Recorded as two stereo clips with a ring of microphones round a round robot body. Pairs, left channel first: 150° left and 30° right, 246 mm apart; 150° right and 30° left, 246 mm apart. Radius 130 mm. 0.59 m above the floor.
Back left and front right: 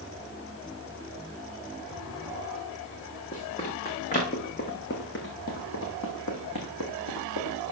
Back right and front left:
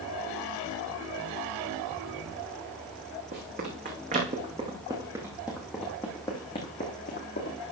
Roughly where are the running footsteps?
Left.